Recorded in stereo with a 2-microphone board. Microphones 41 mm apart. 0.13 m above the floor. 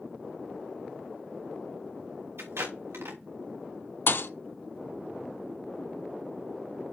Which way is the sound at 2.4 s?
85° right.